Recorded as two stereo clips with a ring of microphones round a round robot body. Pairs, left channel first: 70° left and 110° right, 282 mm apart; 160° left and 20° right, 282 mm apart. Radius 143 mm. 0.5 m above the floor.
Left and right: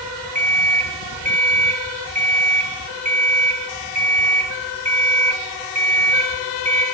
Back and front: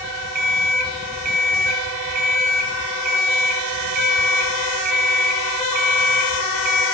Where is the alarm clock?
50° right, 1.5 m.